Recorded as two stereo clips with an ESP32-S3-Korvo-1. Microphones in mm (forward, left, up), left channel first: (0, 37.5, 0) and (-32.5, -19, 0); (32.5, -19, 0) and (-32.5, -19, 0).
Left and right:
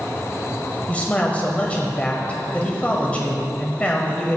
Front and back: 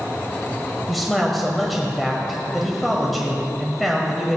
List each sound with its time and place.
0.9 s a man speaking: 90° left, 0.9 m